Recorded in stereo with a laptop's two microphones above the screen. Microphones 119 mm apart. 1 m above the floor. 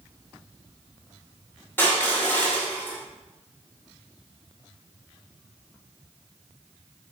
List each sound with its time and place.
1.8 s crushing: 15° left (ahead or behind), 2.5 m